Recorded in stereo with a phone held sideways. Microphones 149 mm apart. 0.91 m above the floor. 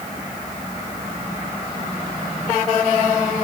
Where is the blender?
No blender in this recording.